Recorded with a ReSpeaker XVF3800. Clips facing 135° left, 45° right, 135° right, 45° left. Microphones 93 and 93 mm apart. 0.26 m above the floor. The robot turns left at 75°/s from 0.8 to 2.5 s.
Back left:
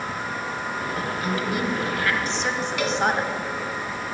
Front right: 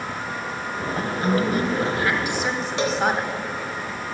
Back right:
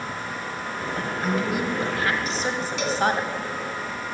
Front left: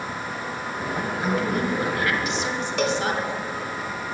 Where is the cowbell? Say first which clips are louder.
Front right 3 dB, front left 6 dB; 20° left, 0.9 m.